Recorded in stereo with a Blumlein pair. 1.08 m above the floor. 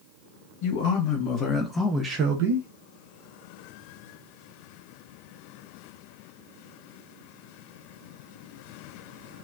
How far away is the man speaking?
About 1.2 m.